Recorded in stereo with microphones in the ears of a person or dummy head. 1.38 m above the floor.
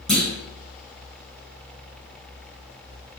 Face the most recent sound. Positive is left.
turn(degrees=0)  # may be behind; listen again after turning